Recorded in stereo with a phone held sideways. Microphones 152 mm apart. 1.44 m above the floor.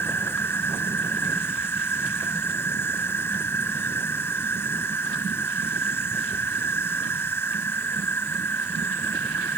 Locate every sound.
0.0 s an insect: 15° left (ahead or behind)